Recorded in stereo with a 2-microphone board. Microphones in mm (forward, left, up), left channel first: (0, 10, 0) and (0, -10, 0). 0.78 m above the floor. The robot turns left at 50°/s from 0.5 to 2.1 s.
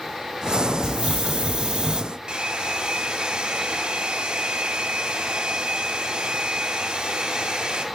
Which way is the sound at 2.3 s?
45° right (ahead or behind).